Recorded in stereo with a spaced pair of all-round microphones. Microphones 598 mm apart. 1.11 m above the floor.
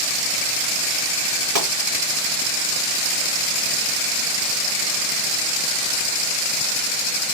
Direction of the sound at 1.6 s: 80° right.